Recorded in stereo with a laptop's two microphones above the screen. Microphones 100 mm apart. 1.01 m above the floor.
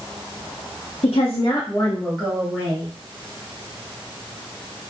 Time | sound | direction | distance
1.0 | a woman speaking | 75° left (ahead or behind) | 0.7 m